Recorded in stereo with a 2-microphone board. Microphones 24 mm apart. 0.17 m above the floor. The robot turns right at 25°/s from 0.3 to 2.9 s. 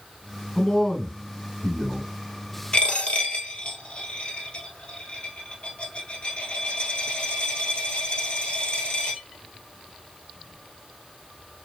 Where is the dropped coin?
50° left (ahead or behind), 1.4 m; by 9.2 s 55° left (ahead or behind), 1.4 m.